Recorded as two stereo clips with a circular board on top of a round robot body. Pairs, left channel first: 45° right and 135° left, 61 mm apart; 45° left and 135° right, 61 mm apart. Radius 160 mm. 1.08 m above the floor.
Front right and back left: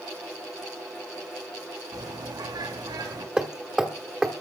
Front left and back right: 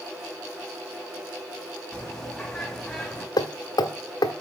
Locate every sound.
1.9 s a bird: 125° left, 2.5 m
3.4 s hammering: 55° left, 1.3 m